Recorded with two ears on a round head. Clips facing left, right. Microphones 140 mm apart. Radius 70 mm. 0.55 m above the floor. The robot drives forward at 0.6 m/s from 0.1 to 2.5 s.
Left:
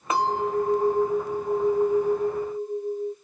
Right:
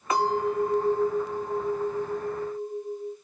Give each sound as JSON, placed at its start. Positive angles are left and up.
{"t": 0.1, "sound": "a clink", "side_deg": 20, "distance_m": 1.4}